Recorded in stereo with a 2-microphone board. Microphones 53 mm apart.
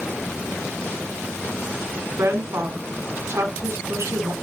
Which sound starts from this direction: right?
A woman speaking, at 2.2 s.